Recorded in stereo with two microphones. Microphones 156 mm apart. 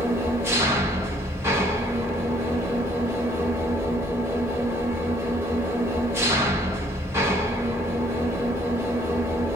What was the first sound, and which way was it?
An engine running, 15° right (ahead or behind).